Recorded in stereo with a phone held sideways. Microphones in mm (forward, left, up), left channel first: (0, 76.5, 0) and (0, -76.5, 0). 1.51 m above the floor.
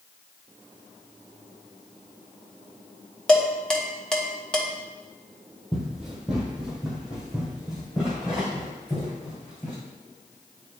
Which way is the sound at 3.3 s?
5° left (ahead or behind).